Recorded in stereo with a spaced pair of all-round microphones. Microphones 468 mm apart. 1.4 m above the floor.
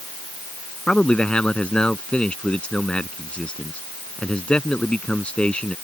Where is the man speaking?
Centre (ahead or behind).